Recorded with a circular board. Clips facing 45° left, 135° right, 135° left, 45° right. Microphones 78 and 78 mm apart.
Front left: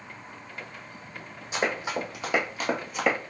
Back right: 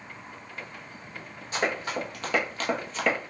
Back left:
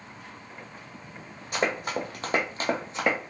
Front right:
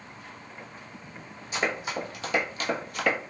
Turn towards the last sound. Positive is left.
turn(degrees=110)